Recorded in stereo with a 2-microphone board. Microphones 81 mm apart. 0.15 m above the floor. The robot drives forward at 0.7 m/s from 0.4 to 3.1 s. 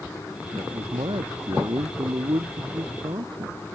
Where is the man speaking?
85° right; by 3.6 s 80° right.